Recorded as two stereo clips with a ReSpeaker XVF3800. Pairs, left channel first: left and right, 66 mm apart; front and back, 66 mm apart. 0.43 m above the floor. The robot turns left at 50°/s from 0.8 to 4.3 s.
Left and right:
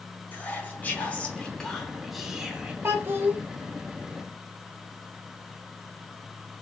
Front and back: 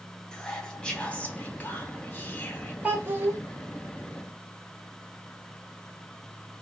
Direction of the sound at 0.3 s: 65° left.